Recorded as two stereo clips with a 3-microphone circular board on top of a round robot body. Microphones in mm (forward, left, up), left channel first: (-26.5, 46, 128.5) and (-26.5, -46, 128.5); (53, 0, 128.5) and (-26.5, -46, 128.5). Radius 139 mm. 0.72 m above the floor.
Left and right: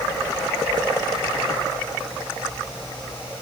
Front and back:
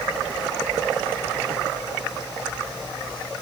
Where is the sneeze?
I don't hear a sneeze.